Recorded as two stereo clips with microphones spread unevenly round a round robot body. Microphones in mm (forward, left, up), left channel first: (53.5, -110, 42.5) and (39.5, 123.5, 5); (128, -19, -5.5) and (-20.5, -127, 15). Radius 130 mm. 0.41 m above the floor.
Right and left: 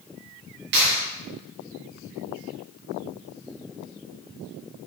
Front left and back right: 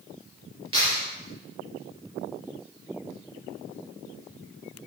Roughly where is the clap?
Behind left.